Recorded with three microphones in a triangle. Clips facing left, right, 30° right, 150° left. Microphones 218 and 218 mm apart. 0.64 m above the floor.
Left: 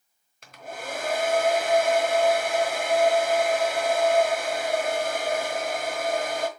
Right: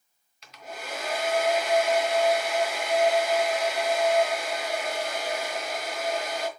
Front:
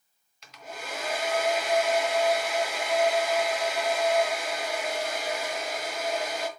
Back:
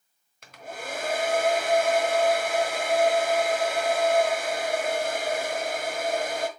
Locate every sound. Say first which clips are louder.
0.4 s a hair dryer: left 3 dB, back 3 dB; 120° left, 1.2 m